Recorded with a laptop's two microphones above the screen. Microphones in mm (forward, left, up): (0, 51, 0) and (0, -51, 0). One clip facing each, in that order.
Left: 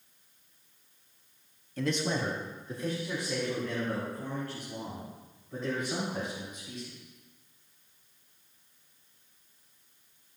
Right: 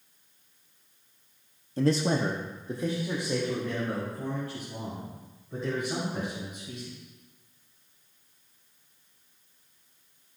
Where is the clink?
I don't hear a clink.